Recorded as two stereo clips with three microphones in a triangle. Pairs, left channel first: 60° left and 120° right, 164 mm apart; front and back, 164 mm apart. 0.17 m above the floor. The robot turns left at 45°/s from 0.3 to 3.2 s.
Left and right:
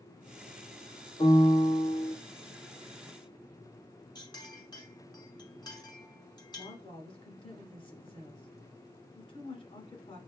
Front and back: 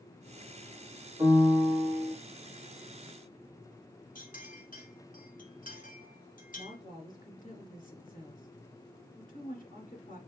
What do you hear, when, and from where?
1.2 s a piano: 120° left, 2 m; by 2.1 s 75° left, 2 m
4.2 s a clink: straight ahead, 1.5 m
6.5 s a woman speaking: 10° left, 1.9 m